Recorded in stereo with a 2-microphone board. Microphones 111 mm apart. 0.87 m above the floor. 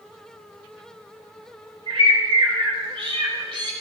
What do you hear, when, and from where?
1.9 s a bird: 45° right (ahead or behind), 2 m